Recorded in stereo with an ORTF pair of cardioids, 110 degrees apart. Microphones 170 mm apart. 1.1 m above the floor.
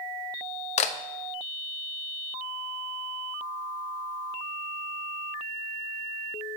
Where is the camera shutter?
45° left, 0.8 m.